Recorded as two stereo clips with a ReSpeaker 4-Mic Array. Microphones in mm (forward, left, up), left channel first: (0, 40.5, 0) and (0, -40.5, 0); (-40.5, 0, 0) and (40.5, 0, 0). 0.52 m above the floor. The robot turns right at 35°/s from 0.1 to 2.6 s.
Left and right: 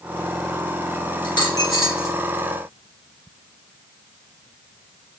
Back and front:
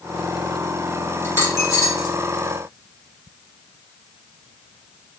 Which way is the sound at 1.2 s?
115° left.